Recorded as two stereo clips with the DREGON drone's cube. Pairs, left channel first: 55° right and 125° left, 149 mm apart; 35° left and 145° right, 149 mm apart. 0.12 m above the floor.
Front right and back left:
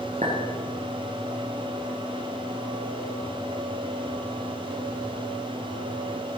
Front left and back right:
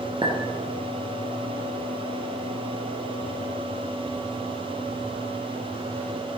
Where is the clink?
160° left, 2.5 m.